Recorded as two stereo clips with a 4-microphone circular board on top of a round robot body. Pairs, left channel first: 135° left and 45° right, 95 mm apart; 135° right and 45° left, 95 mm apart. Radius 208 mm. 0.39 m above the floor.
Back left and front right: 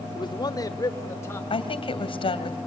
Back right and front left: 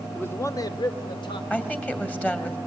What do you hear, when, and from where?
0.1 s a man speaking: 155° left, 1.4 m; by 1.4 s 160° right, 2.5 m
1.5 s a woman speaking: 150° left, 2.5 m